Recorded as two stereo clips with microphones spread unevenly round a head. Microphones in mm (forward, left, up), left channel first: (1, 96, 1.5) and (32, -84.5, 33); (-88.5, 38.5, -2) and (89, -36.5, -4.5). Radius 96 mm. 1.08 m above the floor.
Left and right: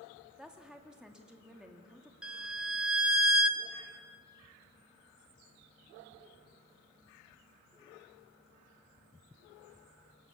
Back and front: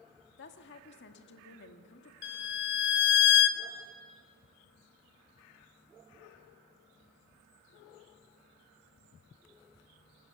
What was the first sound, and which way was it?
A woman speaking, 170° right.